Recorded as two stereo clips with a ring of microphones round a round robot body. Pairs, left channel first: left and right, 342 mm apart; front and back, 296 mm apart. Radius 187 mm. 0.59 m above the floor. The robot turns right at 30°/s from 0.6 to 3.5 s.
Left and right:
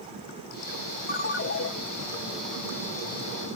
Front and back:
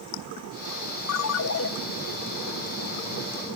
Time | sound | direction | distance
1.1 | a ringtone | 25° left | 1.5 m